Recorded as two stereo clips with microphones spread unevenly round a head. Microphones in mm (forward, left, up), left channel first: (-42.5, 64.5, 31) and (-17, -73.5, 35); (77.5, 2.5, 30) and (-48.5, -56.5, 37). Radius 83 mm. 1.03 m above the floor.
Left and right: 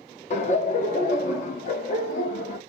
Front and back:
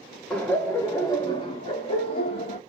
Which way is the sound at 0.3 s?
105° left.